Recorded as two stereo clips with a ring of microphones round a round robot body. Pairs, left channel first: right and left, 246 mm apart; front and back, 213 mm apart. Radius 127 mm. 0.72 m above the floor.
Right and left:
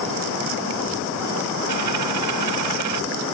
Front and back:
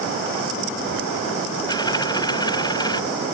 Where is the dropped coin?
70° left.